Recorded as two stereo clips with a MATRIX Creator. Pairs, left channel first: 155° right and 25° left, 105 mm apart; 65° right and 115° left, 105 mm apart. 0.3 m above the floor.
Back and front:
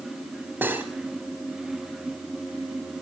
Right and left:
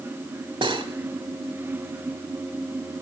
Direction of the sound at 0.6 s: 90° left.